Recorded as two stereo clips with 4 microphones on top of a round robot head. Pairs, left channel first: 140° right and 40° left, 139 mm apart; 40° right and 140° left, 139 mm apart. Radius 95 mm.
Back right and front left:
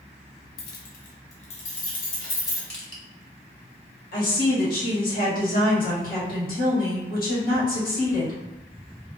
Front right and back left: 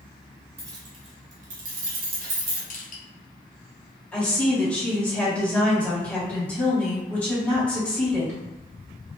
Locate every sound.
0.6 s keys jangling: 150° right, 0.5 m; by 2.6 s 155° left, 1.2 m
2.7 s crushing: 55° right, 1.1 m
4.1 s a woman speaking: 120° right, 1.6 m